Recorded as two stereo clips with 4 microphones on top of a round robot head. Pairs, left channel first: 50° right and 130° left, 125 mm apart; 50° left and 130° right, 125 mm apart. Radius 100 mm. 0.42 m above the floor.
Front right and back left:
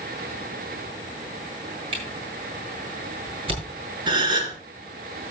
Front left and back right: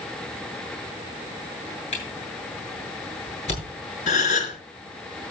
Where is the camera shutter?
85° left, 7.5 m.